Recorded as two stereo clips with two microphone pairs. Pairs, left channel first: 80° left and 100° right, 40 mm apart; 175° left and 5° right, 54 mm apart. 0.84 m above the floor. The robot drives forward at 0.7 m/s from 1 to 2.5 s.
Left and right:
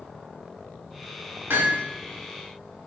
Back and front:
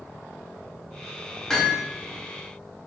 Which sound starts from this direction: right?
Hammering, at 1.5 s.